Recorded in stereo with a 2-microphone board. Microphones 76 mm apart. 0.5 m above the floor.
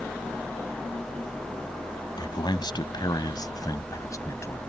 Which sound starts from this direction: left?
A man speaking, at 2.2 s.